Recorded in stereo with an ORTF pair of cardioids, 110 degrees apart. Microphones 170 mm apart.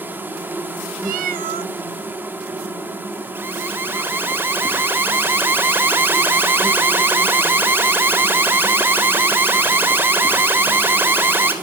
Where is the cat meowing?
60° right, 0.8 m.